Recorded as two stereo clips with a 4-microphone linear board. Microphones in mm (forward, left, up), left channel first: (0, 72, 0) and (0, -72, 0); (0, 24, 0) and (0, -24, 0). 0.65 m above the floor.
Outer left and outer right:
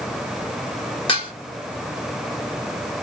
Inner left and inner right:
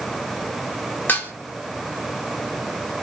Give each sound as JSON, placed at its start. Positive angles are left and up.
{"t": 1.1, "sound": "dishes clattering", "side_deg": 40, "distance_m": 1.7}